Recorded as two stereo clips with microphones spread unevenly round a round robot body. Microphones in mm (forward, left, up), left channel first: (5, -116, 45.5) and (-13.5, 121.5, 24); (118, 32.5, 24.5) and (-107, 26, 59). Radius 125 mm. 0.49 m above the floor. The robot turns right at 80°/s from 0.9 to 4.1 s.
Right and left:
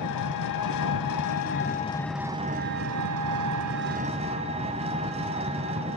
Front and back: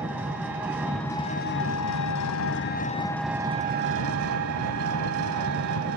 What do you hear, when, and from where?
0.0 s an engine running: 95° right, 1.0 m; by 6.0 s 160° left, 1.0 m